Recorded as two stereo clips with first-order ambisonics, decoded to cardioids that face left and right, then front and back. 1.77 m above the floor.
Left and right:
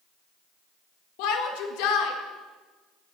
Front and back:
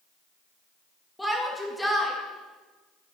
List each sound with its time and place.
1.2 s a shout: 85° left, 2 m